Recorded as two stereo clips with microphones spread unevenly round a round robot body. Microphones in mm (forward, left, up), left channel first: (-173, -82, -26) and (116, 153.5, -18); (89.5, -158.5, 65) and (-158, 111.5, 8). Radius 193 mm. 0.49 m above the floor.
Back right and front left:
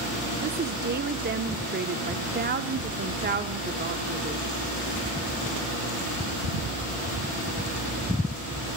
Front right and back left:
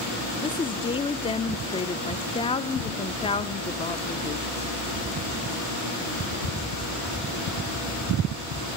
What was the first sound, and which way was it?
A woman speaking, 30° left.